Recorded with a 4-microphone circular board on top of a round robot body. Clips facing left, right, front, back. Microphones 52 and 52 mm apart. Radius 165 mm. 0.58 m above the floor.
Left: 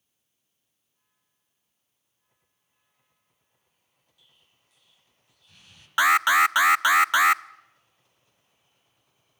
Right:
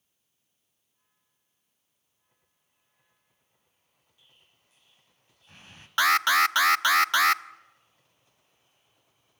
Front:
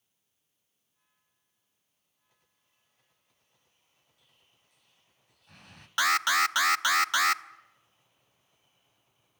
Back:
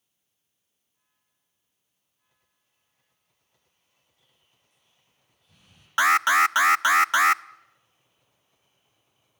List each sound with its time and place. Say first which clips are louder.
4.2 s an explosion: right 1 dB, even; 30° right, 1.3 m
6.0 s an alarm: left 3 dB, back 6 dB; 150° left, 0.7 m